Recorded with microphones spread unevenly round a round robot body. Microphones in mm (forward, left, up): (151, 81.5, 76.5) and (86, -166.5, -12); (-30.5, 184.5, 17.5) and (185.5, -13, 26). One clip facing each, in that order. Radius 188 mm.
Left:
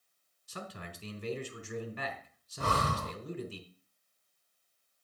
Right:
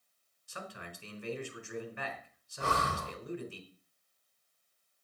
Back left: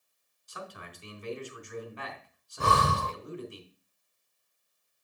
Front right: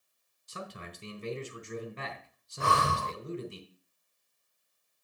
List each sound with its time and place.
0.5 s a man speaking: 20° left, 3.5 m
2.6 s breathing: 135° left, 0.5 m